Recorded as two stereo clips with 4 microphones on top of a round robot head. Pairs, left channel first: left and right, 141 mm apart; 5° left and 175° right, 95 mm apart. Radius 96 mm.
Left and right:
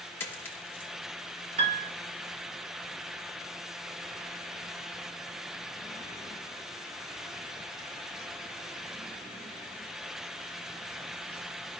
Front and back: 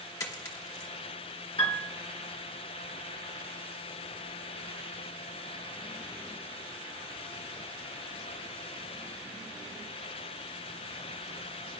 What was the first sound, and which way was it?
A dropped coin, 25° left.